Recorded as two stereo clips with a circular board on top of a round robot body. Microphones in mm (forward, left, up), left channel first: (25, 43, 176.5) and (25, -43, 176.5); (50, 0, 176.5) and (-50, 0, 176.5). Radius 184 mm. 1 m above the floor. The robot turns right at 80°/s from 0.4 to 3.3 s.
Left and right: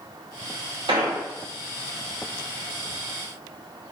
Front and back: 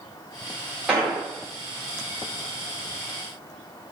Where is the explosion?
95° right, 0.8 m; by 1.2 s 75° right, 0.8 m.